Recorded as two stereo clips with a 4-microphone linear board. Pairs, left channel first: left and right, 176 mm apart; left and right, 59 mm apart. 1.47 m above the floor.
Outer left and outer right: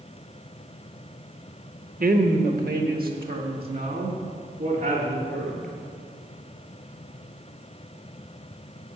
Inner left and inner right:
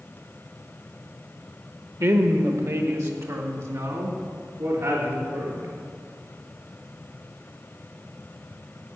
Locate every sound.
2.0 s a woman speaking: 55° right (ahead or behind), 0.9 m; by 5.7 s 60° right (ahead or behind), 3.5 m